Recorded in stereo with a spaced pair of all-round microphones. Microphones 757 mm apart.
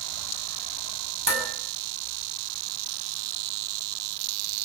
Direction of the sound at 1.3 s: 30° right (ahead or behind).